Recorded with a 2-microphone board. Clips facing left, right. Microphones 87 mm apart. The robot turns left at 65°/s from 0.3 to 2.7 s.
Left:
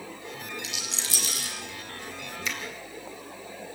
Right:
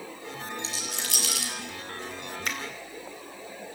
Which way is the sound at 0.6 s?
30° right (ahead or behind).